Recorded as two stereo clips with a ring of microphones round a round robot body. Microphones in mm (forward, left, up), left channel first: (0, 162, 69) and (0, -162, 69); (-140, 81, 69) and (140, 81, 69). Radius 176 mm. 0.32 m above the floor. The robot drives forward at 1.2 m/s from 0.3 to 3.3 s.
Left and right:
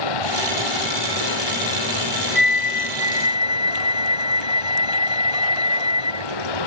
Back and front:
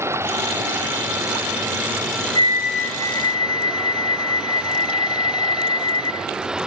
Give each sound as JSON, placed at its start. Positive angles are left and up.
{"t": 0.0, "sound": "running water", "azimuth_deg": 80}
{"t": 2.4, "sound": "a flute", "azimuth_deg": 115}